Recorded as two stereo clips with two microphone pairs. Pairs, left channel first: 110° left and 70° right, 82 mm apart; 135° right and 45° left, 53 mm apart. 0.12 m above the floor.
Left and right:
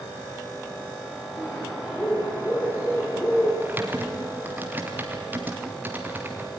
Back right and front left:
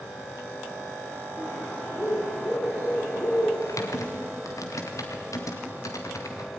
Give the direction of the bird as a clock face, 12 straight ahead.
6 o'clock.